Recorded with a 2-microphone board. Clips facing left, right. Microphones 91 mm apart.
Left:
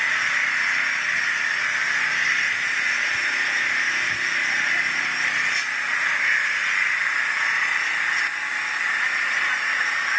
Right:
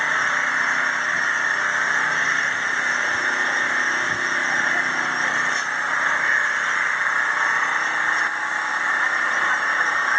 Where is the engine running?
35° right (ahead or behind).